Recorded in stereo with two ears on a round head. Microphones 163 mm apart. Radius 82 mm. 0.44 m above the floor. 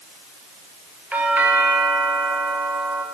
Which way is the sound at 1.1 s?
10° right (ahead or behind).